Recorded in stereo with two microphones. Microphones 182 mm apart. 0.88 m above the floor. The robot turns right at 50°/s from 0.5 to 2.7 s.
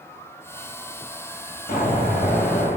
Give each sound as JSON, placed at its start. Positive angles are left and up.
{"t": 1.7, "sound": "an explosion", "azimuth_deg": 50, "distance_m": 3.0}